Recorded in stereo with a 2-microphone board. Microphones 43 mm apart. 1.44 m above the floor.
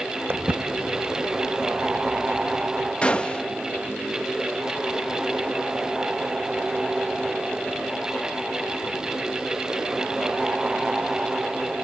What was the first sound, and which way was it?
Footsteps, 65° right (ahead or behind).